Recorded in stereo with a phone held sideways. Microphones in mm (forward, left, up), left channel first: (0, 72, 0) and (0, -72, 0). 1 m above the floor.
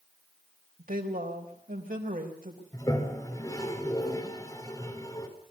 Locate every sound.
0.8 s a woman speaking: 80° right, 4 m
2.7 s a toilet flushing: 25° left (ahead or behind), 3.5 m